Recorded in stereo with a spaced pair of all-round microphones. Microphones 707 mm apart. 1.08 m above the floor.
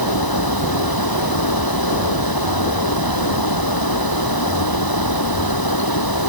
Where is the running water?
30° left (ahead or behind).